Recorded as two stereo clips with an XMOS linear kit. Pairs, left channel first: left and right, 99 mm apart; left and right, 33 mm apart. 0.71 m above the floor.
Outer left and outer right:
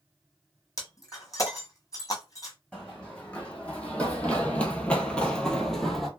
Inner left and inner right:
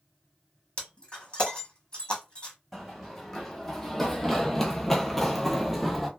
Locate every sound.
0.8 s breaking glass: 35° left (ahead or behind), 1.4 m
2.7 s running footsteps: 10° left (ahead or behind), 1.6 m; by 6.1 s centre (ahead or behind), 0.8 m